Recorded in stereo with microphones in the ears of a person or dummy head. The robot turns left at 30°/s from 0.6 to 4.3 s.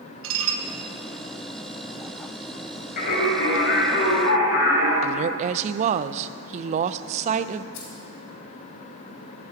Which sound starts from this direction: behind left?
Singing, at 3.0 s.